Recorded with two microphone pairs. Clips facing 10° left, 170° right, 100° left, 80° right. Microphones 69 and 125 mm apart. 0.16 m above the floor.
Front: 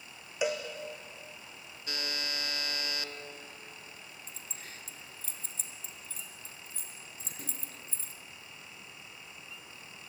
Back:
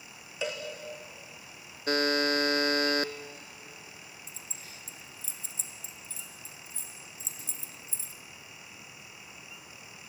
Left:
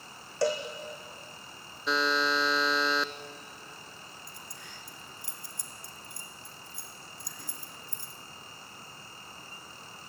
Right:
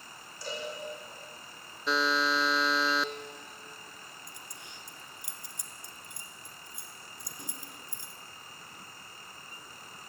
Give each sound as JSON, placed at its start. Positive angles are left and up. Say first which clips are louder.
{"t": 0.4, "sound": "a cowbell", "louder": "front 3 dB, left 11 dB", "azimuth_deg": 85, "distance_m": 3.5}
{"t": 1.9, "sound": "a buzzer", "louder": "back 13 dB, even", "azimuth_deg": -170, "distance_m": 0.8}
{"t": 4.3, "sound": "keys jangling", "louder": "even, left 1 dB", "azimuth_deg": -15, "distance_m": 1.7}